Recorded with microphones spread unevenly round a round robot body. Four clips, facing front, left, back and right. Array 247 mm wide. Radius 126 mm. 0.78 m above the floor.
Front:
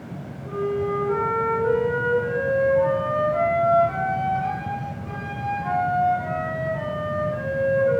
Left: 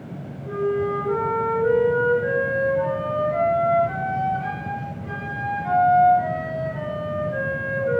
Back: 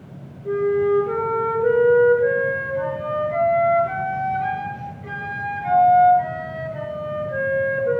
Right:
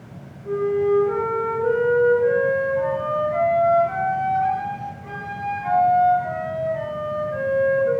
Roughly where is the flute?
Behind.